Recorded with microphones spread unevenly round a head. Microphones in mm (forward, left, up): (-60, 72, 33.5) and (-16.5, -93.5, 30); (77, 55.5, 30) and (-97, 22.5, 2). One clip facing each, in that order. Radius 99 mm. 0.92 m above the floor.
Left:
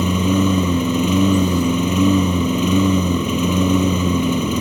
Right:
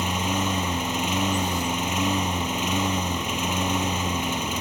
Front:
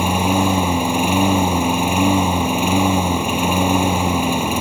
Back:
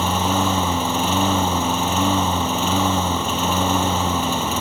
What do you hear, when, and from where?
0.0 s a lawn mower: 85° left